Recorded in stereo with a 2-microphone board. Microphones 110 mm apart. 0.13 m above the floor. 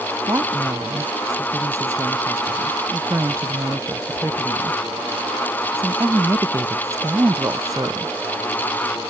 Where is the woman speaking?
30° right (ahead or behind).